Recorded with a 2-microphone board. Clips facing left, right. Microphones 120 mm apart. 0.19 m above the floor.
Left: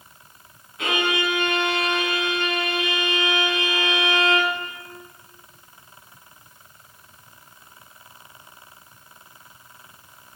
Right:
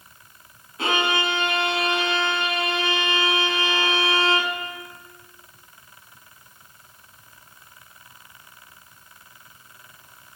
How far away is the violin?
About 2 m.